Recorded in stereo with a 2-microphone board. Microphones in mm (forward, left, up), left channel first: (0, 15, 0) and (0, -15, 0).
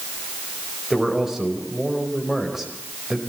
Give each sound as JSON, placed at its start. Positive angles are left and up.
{"t": 0.9, "sound": "a man speaking", "side_deg": -10, "distance_m": 5.0}